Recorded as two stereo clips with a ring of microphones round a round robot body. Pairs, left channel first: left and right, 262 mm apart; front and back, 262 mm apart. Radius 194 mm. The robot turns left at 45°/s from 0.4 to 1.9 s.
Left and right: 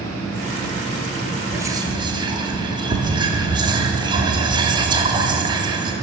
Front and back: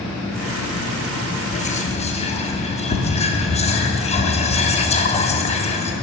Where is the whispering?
15° right, 0.7 m; by 5.9 s 35° right, 0.7 m.